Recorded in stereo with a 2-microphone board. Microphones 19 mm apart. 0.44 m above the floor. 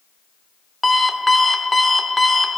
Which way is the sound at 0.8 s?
Centre (ahead or behind).